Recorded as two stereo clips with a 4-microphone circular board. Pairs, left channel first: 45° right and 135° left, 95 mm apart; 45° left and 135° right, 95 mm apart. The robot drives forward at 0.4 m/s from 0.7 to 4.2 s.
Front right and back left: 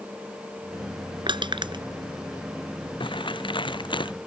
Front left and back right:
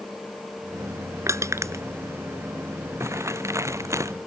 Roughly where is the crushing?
Behind.